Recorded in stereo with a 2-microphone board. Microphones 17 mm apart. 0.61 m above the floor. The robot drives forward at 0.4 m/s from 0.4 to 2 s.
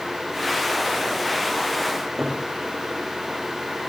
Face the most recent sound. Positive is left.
turn(degrees=-30)  # may be behind; listen again after turning